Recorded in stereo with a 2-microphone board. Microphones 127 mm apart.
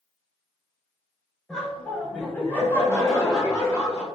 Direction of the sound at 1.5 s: 5° left (ahead or behind).